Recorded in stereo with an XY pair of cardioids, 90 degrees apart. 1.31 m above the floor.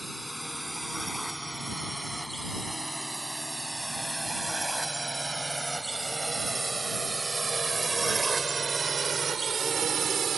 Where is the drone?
5° right; by 10.4 s 60° right.